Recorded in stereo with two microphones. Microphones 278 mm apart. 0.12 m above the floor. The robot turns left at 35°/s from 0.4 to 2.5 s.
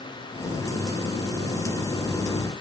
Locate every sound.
Only background noise.